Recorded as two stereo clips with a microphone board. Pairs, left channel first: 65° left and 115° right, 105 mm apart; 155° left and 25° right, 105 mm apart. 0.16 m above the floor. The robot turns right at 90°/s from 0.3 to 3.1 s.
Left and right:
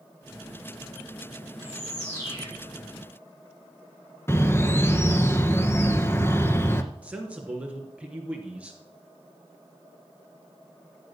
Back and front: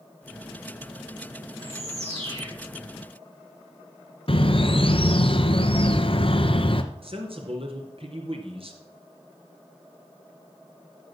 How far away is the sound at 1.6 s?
About 8.5 m.